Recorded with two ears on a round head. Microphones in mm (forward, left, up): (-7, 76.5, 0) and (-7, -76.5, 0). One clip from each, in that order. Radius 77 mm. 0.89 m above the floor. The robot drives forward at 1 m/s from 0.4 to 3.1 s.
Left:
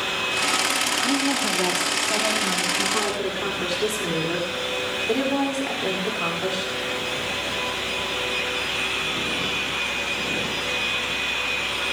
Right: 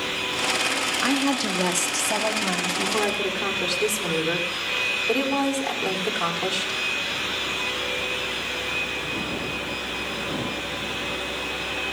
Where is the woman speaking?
70° right (ahead or behind), 1.3 m; by 6.8 s 35° right (ahead or behind), 2 m.